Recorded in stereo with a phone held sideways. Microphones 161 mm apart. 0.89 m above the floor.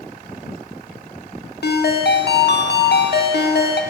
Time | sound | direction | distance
1.6 | a ringtone | 75° left (ahead or behind) | 1.0 m